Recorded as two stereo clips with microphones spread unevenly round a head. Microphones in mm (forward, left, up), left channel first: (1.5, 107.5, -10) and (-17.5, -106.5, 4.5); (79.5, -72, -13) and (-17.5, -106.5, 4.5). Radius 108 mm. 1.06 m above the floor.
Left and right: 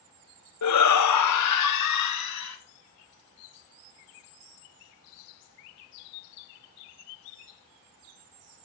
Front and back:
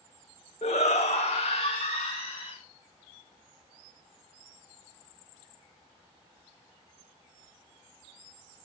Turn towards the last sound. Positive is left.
turn(degrees=85)